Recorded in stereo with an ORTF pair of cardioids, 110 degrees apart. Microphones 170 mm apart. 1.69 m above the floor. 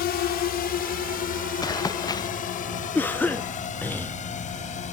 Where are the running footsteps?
25° left.